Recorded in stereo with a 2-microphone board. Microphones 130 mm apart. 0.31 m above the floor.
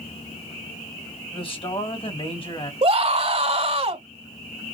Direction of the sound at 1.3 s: 45° left (ahead or behind).